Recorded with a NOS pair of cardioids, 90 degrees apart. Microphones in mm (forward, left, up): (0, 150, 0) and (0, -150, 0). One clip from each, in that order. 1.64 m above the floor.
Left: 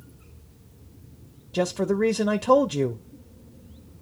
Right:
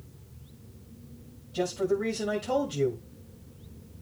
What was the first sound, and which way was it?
A man speaking, 65° left.